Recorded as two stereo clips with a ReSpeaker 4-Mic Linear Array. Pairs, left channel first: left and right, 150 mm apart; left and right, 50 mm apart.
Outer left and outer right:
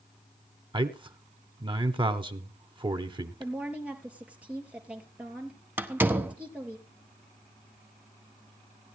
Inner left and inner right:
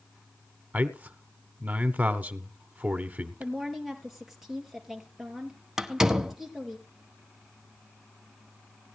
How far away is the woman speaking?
About 3 m.